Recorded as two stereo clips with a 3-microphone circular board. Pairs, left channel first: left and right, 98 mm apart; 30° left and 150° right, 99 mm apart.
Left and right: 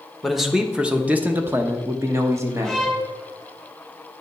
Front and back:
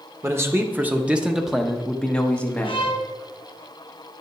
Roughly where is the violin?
Ahead.